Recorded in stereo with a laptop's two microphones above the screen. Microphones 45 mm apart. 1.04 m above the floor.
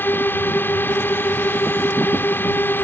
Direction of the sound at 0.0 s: 45° left (ahead or behind).